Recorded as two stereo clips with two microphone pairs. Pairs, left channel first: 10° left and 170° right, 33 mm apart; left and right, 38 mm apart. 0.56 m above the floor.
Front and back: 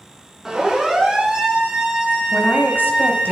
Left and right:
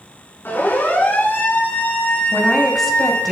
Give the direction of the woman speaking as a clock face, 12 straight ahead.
12 o'clock.